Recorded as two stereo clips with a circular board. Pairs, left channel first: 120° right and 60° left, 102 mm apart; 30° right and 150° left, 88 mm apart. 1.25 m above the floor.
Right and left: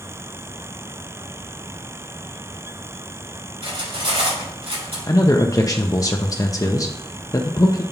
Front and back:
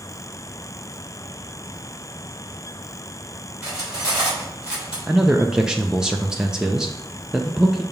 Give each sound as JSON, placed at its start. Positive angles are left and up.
{"t": 3.6, "sound": "cutlery clinking", "azimuth_deg": 70, "distance_m": 3.0}
{"t": 5.1, "sound": "a man speaking", "azimuth_deg": -135, "distance_m": 0.6}